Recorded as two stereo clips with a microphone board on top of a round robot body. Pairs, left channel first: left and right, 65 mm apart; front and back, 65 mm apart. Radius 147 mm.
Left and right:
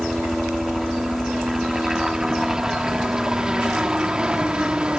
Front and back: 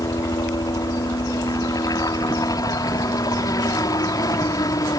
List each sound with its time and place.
0.0 s a helicopter: 5° right; by 5.0 s 15° right